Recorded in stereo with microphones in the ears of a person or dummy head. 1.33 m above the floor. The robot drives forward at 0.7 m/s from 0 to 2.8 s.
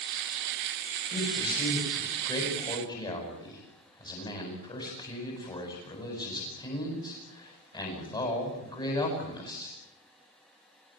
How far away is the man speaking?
About 9 m.